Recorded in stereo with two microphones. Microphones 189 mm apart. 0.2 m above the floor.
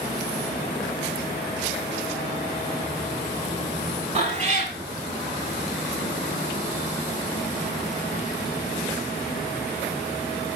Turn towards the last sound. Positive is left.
turn(degrees=-35)  # may be behind; listen again after turning